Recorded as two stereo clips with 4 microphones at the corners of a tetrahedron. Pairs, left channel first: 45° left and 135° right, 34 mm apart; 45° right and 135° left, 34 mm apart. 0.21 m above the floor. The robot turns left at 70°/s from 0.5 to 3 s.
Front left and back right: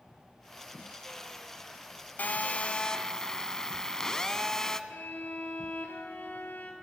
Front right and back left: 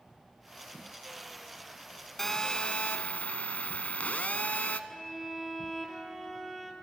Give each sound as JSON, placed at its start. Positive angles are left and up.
{"t": 2.2, "sound": "a phone buzzing", "azimuth_deg": 35, "distance_m": 0.8}
{"t": 4.9, "sound": "a violin", "azimuth_deg": 35, "distance_m": 2.5}